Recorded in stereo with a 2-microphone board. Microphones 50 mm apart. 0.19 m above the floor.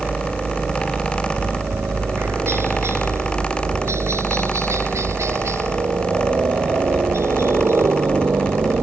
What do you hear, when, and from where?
0.0 s a helicopter: 30° right (ahead or behind); by 8.8 s 60° right (ahead or behind)